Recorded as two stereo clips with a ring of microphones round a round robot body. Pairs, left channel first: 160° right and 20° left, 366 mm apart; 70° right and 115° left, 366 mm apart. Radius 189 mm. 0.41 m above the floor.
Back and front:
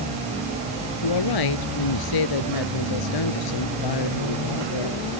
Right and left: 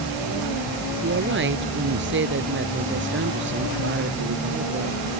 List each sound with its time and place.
1.0 s a woman speaking: 175° left